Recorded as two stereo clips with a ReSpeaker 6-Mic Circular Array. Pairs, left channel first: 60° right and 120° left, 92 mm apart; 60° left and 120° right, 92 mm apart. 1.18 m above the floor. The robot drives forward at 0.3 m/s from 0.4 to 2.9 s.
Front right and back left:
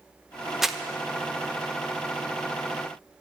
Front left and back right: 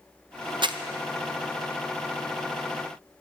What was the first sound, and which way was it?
Crumpling, 155° right.